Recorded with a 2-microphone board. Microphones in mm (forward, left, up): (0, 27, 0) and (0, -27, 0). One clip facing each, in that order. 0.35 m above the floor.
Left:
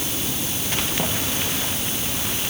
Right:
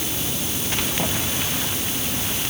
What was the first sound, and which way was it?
Only background noise.